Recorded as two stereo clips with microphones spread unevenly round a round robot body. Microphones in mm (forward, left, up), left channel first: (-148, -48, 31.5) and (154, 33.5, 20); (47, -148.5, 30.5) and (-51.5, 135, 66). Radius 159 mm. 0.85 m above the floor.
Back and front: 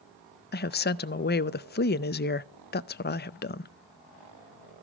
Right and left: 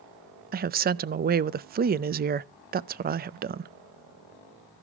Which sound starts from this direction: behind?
A woman speaking, at 0.5 s.